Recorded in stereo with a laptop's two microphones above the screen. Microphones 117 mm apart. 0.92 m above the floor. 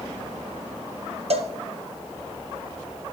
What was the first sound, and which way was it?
A cowbell, 60° right (ahead or behind).